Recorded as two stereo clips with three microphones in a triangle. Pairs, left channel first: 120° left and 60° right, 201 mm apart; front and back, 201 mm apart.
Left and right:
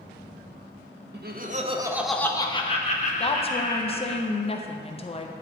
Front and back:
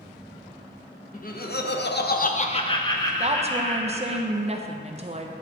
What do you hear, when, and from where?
1.1 s laughter: 40° right, 0.7 m; by 4.2 s 85° left, 1.8 m
3.2 s a woman speaking: 155° left, 0.5 m